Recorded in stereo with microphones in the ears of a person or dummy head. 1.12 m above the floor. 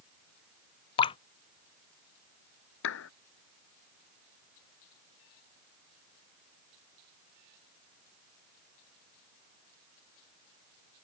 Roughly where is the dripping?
Left.